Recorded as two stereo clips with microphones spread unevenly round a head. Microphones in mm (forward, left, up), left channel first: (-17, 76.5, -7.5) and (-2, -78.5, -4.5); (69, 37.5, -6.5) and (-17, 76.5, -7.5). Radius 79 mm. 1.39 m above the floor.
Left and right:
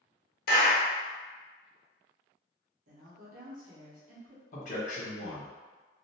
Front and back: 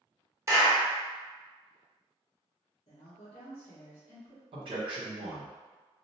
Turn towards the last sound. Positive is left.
turn(degrees=135)